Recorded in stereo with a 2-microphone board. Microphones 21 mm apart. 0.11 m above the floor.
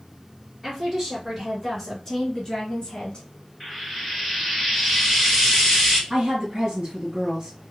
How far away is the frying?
About 1.9 m.